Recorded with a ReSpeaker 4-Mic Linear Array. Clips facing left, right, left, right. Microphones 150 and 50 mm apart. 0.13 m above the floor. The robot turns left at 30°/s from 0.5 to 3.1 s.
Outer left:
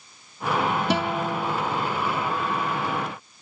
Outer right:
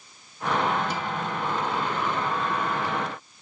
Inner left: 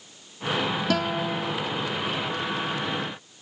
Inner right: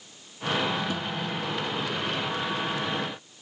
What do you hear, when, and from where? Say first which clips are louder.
0.9 s a guitar: outer left 5 dB, inner left 6 dB; 75° left (ahead or behind); by 1.5 s 65° left (ahead or behind)